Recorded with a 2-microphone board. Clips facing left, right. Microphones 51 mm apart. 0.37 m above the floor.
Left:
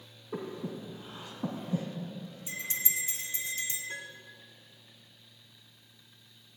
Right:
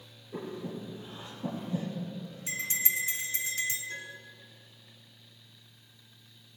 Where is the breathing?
75° left (ahead or behind), 3 m.